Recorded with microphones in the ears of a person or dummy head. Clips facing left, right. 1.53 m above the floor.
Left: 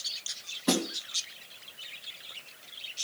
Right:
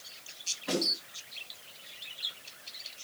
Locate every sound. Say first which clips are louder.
0.7 s a snare drum: left 4 dB; 70° left (ahead or behind), 3 m